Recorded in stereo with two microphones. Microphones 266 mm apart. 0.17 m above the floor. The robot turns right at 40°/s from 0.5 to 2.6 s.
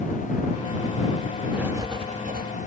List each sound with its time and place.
1.5 s writing: straight behind; by 2.5 s 140° right